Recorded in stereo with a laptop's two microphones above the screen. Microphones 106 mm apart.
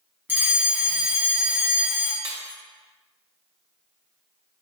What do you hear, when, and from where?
0.3 s a fire alarm: 15° right (ahead or behind), 1.2 m
2.2 s breaking glass: 50° right (ahead or behind), 1.0 m